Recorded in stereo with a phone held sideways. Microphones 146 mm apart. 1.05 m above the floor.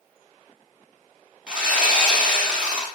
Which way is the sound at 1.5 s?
5° right (ahead or behind).